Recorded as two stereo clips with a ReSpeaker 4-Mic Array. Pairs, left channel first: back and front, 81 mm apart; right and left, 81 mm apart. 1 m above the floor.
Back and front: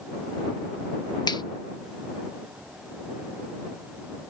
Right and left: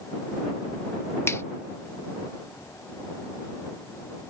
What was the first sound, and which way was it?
A finger snap, 145° right.